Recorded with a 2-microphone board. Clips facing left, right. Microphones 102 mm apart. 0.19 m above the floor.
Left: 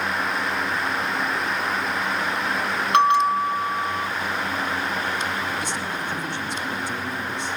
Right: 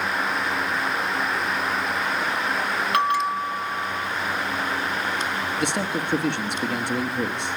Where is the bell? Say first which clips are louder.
Left 6 dB; 25° left (ahead or behind), 1.3 m.